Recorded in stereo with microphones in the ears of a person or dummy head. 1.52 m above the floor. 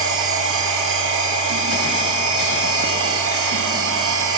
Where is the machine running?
80° right, 0.7 m.